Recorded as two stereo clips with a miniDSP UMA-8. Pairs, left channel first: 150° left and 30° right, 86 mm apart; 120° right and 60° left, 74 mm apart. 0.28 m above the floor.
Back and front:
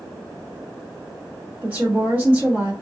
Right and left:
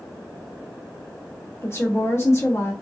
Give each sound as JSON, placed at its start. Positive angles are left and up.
{"t": 1.6, "sound": "a woman speaking", "azimuth_deg": -90, "distance_m": 1.8}